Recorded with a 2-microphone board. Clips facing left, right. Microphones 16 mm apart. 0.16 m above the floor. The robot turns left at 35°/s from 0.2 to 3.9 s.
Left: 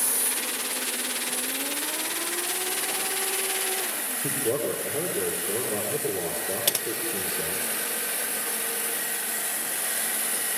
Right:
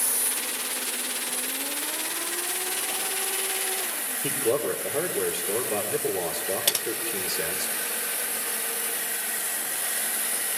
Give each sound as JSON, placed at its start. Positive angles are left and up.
{"t": 4.2, "sound": "a man speaking", "side_deg": -65, "distance_m": 3.5}
{"t": 6.7, "sound": "typing on a keyboard", "side_deg": -15, "distance_m": 0.7}